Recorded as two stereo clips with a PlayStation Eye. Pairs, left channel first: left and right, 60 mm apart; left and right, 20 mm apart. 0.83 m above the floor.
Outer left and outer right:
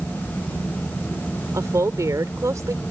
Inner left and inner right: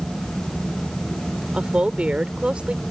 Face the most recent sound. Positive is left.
turn(degrees=-65)  # may be behind; listen again after turning